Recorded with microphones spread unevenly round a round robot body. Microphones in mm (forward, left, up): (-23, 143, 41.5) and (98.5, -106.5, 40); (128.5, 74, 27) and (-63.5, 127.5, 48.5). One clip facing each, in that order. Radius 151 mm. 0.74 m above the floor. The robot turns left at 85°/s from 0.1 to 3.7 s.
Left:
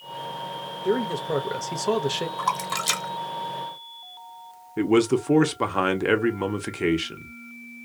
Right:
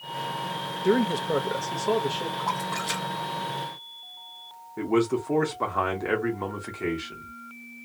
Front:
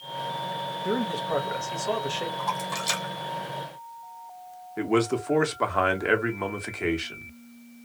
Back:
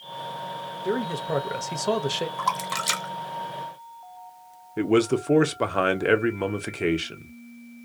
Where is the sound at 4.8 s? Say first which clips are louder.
Left 4 dB, back 3 dB; 115° left, 0.7 m.